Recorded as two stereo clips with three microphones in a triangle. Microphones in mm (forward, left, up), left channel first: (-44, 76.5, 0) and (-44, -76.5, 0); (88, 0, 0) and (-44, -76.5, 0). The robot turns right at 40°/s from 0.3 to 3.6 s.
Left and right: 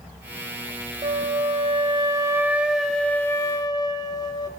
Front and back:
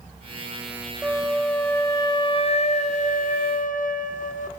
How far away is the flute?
About 0.9 m.